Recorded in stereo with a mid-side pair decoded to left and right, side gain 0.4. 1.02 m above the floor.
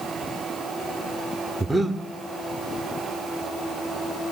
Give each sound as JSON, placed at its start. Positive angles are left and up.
{"t": 1.6, "sound": "breathing", "azimuth_deg": -10, "distance_m": 2.0}